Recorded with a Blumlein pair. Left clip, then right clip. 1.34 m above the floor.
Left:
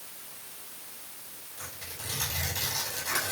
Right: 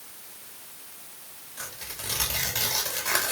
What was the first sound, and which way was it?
Tearing paper, 55° right.